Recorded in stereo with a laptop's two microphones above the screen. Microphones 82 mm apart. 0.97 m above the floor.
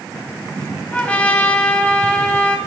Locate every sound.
0.9 s a trumpet: 20° left (ahead or behind), 1.8 m